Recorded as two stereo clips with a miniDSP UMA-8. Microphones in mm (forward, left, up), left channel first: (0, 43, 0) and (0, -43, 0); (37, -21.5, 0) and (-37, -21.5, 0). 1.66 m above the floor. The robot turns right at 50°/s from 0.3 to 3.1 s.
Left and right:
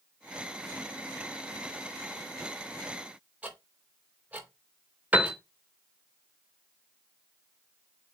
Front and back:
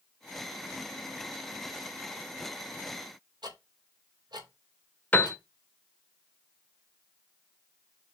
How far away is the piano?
About 1.5 m.